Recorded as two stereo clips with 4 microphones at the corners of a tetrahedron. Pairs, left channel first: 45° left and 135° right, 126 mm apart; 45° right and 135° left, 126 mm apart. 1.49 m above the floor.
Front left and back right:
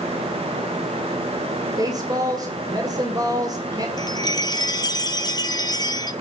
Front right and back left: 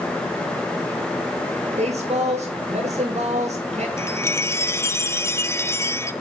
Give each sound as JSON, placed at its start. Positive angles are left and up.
{"t": 1.8, "sound": "a woman speaking", "azimuth_deg": 165, "distance_m": 2.0}
{"t": 4.0, "sound": "a chime", "azimuth_deg": 15, "distance_m": 0.8}